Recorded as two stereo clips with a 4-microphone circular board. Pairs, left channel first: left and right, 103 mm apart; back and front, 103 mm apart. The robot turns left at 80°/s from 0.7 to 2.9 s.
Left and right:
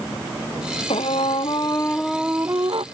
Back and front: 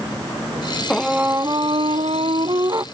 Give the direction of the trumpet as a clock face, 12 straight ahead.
9 o'clock.